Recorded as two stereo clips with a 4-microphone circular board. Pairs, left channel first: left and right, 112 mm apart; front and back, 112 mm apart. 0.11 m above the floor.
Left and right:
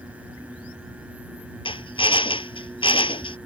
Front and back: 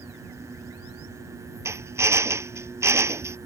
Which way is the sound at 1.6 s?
120° left.